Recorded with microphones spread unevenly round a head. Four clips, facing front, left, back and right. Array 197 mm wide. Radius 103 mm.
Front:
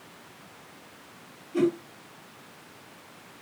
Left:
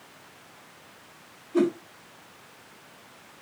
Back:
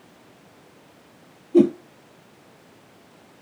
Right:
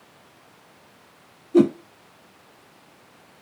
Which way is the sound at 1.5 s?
125° right.